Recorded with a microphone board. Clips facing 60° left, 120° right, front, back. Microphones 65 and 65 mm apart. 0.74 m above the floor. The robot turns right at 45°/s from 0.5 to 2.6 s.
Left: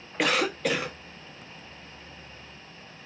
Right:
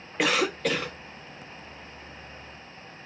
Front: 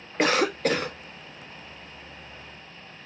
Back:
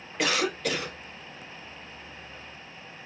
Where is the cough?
30° right, 0.7 m; by 1.0 s 10° right, 0.7 m.